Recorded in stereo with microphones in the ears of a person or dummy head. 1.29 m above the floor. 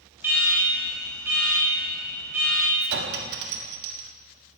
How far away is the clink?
About 1.7 m.